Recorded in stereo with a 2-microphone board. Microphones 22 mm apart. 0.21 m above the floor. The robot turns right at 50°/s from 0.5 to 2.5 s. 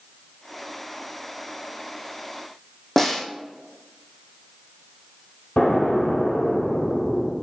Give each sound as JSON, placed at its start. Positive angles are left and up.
{"t": 3.0, "sound": "a snare drum", "side_deg": 20, "distance_m": 1.7}
{"t": 5.6, "sound": "an explosion", "side_deg": 70, "distance_m": 3.0}